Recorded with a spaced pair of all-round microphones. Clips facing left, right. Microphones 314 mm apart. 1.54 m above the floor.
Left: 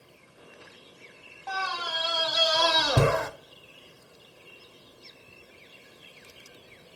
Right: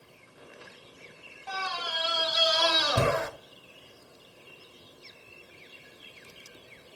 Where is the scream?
60° left (ahead or behind), 0.6 m.